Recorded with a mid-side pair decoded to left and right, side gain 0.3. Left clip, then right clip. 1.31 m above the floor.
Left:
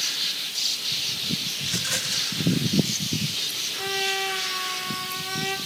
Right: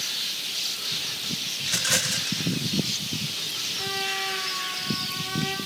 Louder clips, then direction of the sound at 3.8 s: Left 4 dB; 45° left.